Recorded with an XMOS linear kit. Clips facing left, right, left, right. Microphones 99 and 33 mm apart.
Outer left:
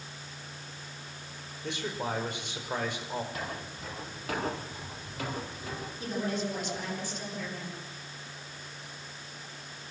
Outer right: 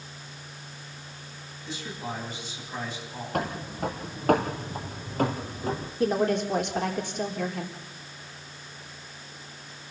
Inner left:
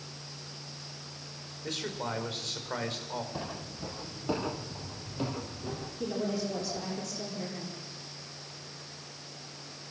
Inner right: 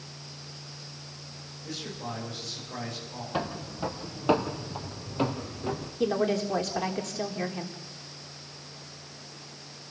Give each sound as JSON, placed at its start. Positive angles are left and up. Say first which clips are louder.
{"t": 1.6, "sound": "a man speaking", "louder": "outer left 2 dB, inner left 2 dB", "side_deg": 70, "distance_m": 6.0}
{"t": 3.3, "sound": "footsteps", "louder": "outer right 8 dB, inner right 6 dB", "side_deg": -65, "distance_m": 4.0}
{"t": 6.0, "sound": "a woman speaking", "louder": "outer right 9 dB, inner right 7 dB", "side_deg": -75, "distance_m": 4.0}